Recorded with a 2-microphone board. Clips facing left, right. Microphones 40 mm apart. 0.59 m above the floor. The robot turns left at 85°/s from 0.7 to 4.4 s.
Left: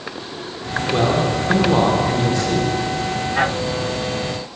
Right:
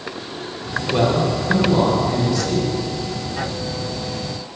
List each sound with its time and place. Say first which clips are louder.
0.9 s a man speaking: even; 170° left, 1.9 m; by 2.7 s 15° left, 1.9 m